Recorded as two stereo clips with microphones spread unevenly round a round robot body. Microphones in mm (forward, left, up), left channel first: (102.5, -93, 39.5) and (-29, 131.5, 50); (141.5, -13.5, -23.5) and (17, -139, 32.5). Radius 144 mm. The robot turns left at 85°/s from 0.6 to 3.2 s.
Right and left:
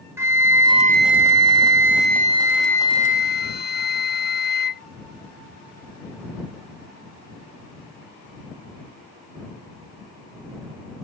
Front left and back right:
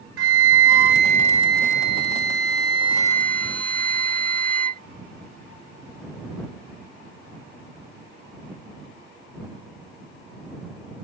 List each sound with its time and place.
0.2 s a flute: 160° right; by 4.8 s 20° right